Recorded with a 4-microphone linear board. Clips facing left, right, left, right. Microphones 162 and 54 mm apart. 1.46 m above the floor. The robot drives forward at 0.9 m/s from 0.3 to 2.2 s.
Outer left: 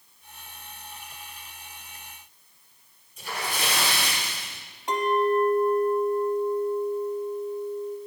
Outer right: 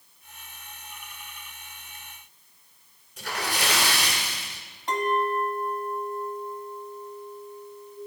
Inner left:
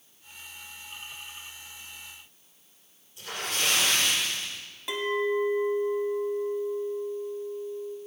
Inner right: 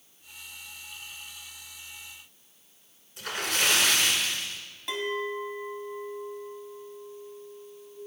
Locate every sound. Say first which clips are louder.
3.2 s a splash: outer right 1 dB, inner right 3 dB; 70° right (ahead or behind), 1.6 m
4.9 s a clink: outer left 3 dB, inner left 4 dB; 10° left (ahead or behind), 0.9 m